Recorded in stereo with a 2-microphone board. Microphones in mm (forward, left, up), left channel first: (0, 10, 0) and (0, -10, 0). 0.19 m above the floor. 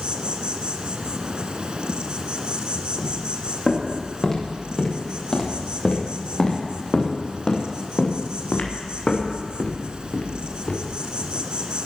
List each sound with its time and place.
0.0 s an insect: 45° right (ahead or behind), 1.3 m
3.0 s footsteps: 20° left (ahead or behind), 7 m; by 11.0 s 60° left (ahead or behind), 4 m